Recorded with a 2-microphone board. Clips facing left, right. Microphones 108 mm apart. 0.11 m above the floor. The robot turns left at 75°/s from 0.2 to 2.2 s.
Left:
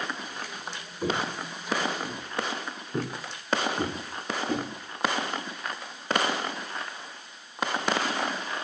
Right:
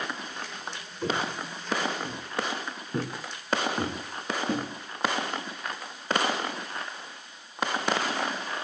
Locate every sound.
1.0 s footsteps: 20° left (ahead or behind), 1.3 m; by 4.7 s 50° right (ahead or behind), 5 m